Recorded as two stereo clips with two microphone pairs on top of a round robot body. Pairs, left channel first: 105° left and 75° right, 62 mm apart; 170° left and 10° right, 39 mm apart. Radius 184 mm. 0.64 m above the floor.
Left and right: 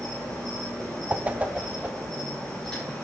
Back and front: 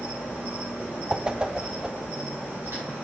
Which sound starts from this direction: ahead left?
An insect, at 0.0 s.